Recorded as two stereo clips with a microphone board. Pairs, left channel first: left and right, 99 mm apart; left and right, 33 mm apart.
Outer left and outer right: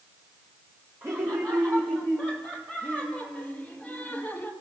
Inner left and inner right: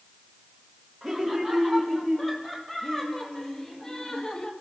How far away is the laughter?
About 3.5 m.